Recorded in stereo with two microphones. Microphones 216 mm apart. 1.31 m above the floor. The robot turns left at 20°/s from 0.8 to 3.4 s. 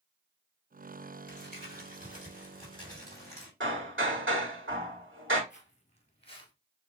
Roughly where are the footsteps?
Left.